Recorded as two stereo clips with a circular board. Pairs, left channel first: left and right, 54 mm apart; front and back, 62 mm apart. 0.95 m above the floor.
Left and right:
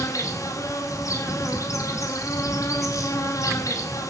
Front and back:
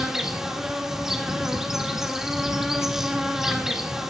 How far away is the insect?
About 2.0 m.